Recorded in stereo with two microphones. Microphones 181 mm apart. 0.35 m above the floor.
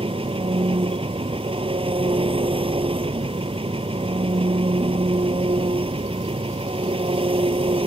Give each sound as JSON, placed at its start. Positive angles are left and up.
{"t": 0.0, "sound": "an engine running", "side_deg": -30}